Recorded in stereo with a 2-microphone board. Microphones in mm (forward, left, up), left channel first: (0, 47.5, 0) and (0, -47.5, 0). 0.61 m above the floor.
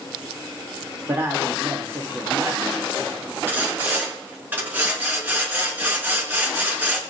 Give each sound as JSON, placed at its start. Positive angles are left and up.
{"t": 1.1, "sound": "a woman speaking", "side_deg": -30, "distance_m": 2.0}
{"t": 3.5, "sound": "sawing", "side_deg": -20, "distance_m": 4.0}